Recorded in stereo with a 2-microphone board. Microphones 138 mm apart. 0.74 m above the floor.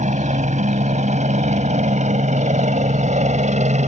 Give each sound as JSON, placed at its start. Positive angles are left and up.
{"t": 0.0, "sound": "a helicopter", "side_deg": -60}